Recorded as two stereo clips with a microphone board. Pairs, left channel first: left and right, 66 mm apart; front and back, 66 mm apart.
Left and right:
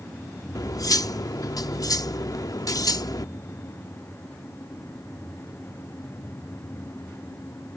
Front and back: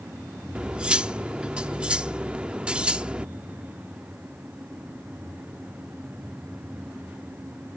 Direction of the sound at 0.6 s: 105° left.